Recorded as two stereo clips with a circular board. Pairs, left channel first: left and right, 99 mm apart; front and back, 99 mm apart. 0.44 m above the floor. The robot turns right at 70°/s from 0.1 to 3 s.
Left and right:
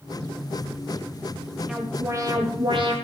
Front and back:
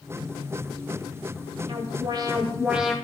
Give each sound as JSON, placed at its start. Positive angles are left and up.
{"t": 1.7, "sound": "an alarm", "azimuth_deg": -175, "distance_m": 1.5}